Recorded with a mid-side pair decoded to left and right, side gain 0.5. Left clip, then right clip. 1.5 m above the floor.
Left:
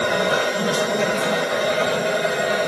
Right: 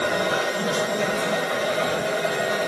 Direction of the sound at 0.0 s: 30° left.